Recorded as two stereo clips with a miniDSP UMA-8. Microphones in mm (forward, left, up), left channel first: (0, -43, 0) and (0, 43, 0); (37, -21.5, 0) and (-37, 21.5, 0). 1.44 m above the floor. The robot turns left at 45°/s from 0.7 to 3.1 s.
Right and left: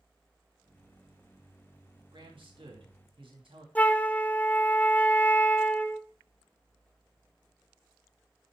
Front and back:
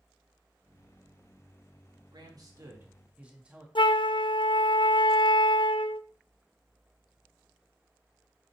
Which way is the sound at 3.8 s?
15° right.